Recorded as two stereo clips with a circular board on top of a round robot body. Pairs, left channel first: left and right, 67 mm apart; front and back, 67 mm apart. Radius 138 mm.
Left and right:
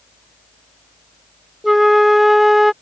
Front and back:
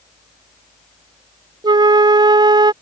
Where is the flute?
Straight behind.